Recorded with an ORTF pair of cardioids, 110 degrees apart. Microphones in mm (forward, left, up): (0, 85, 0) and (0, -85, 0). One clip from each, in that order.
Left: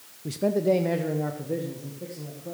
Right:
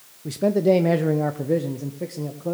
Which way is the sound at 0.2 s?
10° right.